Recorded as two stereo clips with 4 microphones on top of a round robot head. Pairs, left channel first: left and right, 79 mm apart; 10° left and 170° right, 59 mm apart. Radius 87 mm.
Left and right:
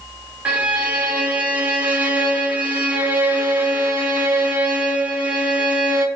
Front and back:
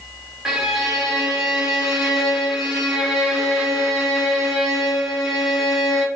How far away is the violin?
About 0.7 m.